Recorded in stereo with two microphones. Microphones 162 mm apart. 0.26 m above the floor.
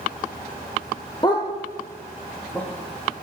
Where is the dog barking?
25° left (ahead or behind), 2.0 m; by 3.2 s 5° left (ahead or behind), 3 m.